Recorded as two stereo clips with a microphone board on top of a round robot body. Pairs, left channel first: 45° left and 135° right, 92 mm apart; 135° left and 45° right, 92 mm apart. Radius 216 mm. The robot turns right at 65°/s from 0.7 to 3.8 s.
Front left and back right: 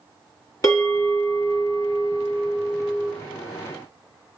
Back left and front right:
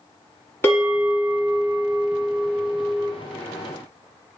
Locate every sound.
0.6 s a bell: 80° left, 1.7 m; by 3.1 s 125° right, 1.7 m